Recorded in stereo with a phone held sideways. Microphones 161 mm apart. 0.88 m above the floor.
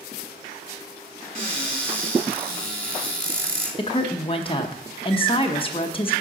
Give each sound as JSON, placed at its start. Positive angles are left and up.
{"t": 1.4, "sound": "a cupboard door", "side_deg": -55, "distance_m": 2.5}
{"t": 3.8, "sound": "a woman speaking", "side_deg": 30, "distance_m": 0.7}